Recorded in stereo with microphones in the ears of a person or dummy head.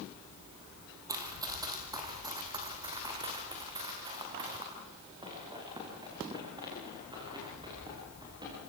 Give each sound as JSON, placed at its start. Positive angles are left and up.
{"t": 1.1, "sound": "running footsteps", "side_deg": -15, "distance_m": 2.0}